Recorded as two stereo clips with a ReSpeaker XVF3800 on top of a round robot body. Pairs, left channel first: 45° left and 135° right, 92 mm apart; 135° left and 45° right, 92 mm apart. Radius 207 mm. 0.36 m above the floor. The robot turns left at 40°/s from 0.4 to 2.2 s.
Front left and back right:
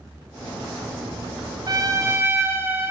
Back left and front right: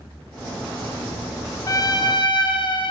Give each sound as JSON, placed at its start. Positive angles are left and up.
{"t": 1.7, "sound": "a trumpet", "azimuth_deg": -175, "distance_m": 0.7}